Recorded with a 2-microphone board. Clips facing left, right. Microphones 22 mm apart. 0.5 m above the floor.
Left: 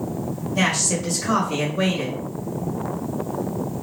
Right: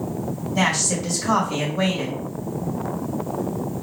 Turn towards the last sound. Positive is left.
turn(degrees=-5)  # may be behind; listen again after turning